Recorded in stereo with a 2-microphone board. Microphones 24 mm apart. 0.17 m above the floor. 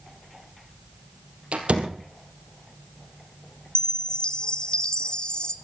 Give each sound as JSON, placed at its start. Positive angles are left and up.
{"t": 1.5, "sound": "a door slam", "side_deg": -65, "distance_m": 3.0}
{"t": 3.8, "sound": "a chime", "side_deg": 40, "distance_m": 0.9}